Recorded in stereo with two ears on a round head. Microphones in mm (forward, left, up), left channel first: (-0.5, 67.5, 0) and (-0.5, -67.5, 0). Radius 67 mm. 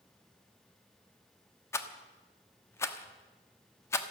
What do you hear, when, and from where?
1.7 s a rattle: 20° left (ahead or behind), 1.0 m